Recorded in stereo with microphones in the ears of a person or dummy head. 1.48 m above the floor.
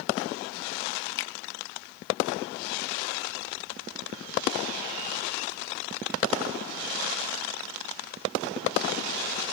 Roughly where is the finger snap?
Left.